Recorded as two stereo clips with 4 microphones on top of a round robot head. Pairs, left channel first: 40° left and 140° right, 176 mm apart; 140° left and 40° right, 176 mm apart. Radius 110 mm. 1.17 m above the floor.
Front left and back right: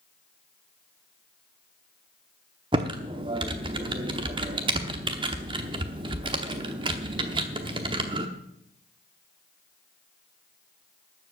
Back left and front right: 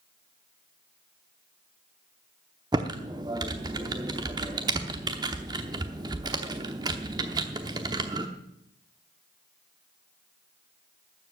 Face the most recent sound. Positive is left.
turn(degrees=-95)